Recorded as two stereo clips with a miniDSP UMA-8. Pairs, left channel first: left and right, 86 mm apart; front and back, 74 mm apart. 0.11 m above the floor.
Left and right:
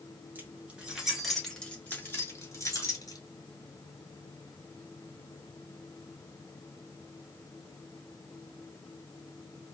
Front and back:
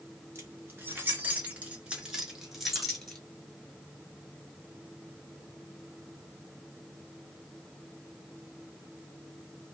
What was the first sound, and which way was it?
Keys jangling, 145° right.